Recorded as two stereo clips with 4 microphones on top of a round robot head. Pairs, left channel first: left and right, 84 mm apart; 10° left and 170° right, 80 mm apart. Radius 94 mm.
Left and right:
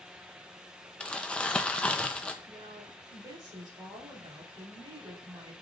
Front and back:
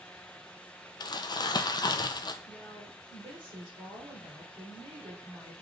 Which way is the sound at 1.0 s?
15° left.